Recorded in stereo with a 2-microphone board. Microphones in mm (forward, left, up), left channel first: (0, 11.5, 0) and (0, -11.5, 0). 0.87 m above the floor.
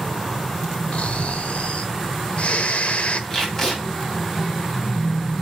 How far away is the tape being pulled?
About 7 m.